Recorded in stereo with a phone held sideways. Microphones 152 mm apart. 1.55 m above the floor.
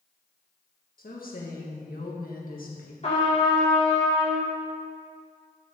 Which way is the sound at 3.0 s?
45° left (ahead or behind).